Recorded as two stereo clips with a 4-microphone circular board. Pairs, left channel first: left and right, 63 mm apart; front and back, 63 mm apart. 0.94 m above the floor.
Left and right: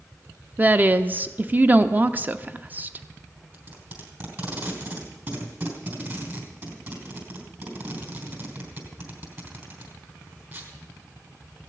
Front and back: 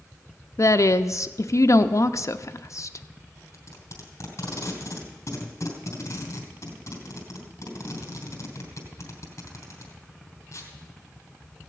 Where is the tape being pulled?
35° right, 3.5 m.